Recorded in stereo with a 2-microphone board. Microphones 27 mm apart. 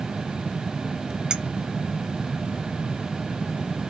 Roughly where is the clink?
Right.